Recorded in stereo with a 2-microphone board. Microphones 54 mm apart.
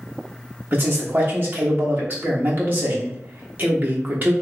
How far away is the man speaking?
About 1.1 m.